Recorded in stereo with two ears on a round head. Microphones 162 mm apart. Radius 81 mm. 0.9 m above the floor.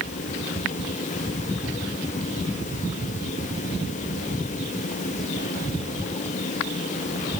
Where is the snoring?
No snoring in this recording.